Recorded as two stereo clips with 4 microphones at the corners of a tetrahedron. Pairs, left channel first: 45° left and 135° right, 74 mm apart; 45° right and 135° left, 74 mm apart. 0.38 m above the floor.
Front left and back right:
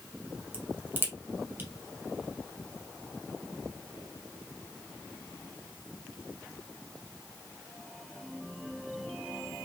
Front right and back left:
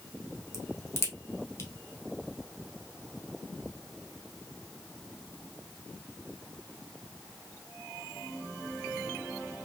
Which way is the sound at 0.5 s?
85° right.